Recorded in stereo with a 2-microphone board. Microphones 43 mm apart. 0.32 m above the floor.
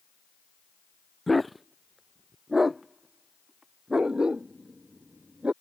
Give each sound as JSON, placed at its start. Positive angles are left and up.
{"t": 1.3, "sound": "a dog barking", "side_deg": 0}